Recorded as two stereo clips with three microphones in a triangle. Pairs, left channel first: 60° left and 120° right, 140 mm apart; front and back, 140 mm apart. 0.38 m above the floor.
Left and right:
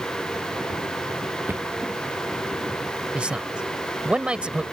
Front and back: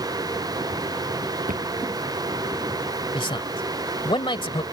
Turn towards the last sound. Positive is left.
turn(degrees=-40)